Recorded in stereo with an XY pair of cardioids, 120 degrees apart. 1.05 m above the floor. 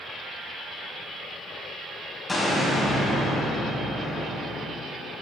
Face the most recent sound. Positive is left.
turn(degrees=25)